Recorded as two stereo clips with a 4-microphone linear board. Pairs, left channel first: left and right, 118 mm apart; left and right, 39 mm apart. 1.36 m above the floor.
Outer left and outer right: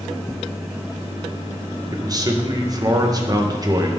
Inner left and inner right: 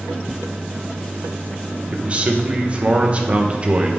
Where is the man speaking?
30° right (ahead or behind), 1.5 m.